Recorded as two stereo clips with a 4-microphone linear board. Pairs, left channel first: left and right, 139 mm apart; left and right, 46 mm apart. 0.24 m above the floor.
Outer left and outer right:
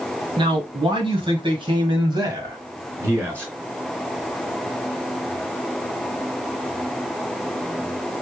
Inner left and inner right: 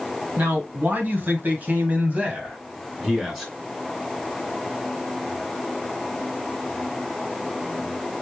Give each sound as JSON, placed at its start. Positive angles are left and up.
{"t": 0.4, "sound": "a man speaking", "side_deg": -35, "distance_m": 1.7}